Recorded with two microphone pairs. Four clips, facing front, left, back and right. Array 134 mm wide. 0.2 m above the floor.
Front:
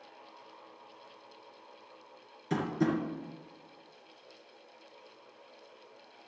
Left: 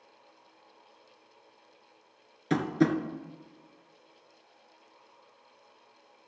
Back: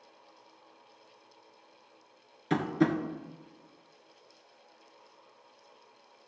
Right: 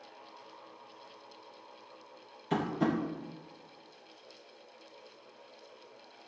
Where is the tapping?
115° left, 2 m.